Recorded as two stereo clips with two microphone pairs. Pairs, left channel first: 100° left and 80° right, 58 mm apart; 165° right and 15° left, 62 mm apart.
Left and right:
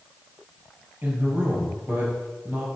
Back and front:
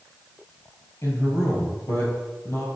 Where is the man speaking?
135° right, 3 m.